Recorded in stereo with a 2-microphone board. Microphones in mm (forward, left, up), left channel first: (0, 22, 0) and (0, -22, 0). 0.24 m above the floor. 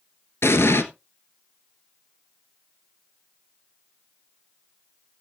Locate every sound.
0.4 s an explosion: 70° left (ahead or behind), 1.2 m